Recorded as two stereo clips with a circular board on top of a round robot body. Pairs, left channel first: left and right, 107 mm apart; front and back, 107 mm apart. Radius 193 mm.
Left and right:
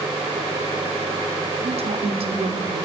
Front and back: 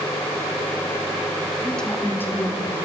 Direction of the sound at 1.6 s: 85° right.